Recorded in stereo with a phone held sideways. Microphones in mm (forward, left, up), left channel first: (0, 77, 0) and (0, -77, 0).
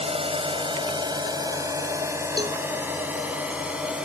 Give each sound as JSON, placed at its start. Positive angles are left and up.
{"t": 0.0, "sound": "a drone", "side_deg": -40}
{"t": 2.4, "sound": "a cowbell", "side_deg": -25}